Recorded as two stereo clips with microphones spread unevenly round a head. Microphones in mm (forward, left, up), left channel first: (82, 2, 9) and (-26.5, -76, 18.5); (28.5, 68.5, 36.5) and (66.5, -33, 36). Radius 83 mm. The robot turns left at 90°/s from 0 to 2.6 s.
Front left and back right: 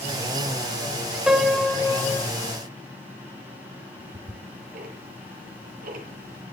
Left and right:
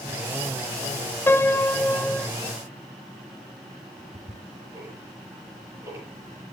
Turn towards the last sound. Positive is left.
turn(degrees=-145)